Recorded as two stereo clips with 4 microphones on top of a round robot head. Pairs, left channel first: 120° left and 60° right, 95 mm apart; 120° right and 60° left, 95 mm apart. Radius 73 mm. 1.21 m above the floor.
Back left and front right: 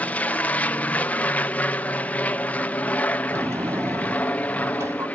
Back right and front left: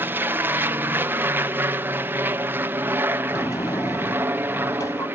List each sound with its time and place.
0.0 s an aircraft: 75° left
3.3 s a sliding door: 95° right